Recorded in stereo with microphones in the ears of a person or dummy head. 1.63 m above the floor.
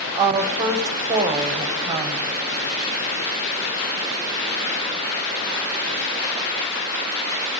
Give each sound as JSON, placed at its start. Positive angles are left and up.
{"t": 0.1, "sound": "a woman speaking", "side_deg": -15, "distance_m": 0.8}